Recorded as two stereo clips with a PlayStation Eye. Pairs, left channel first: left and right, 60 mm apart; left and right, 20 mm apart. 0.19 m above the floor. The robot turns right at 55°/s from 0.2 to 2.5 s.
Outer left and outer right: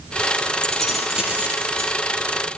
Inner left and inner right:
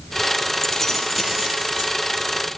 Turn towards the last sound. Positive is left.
turn(degrees=-95)